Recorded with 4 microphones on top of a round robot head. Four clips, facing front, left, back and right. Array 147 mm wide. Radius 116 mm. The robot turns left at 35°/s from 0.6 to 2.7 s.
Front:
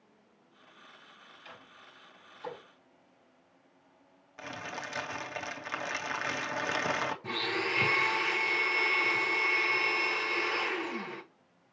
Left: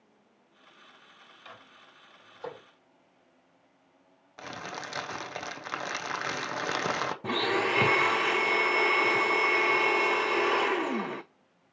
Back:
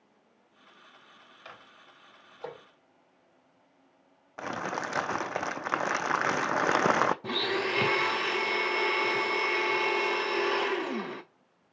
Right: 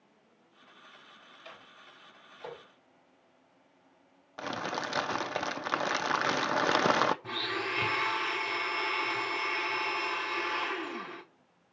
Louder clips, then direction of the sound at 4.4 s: Right 5 dB, back 8 dB; 155° right.